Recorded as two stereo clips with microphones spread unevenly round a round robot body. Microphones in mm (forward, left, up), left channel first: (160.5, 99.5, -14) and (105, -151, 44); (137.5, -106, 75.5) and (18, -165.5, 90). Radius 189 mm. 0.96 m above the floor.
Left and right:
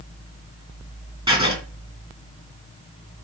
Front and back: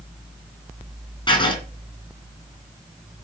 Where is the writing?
30° right, 4 m.